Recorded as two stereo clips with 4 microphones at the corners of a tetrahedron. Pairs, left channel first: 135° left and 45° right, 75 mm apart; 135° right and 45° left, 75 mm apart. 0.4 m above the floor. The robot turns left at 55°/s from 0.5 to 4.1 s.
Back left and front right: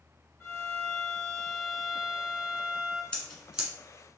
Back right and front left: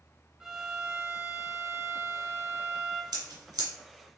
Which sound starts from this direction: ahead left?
Scissors, at 3.1 s.